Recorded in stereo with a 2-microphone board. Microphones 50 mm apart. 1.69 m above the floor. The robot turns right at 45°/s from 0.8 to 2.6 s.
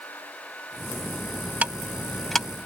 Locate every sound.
1.6 s ticking: 30° right (ahead or behind); by 2.5 s 10° left (ahead or behind)